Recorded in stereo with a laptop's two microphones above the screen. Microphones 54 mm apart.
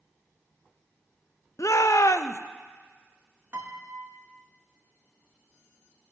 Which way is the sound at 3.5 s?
45° right (ahead or behind).